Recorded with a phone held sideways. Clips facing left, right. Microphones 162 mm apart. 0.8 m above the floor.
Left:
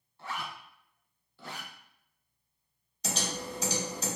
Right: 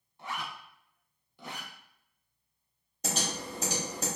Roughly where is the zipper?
Centre.